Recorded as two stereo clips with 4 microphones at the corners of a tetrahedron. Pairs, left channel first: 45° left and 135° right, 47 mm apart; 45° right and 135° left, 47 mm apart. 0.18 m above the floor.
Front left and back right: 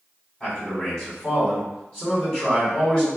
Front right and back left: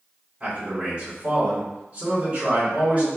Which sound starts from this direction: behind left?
A man speaking, at 0.4 s.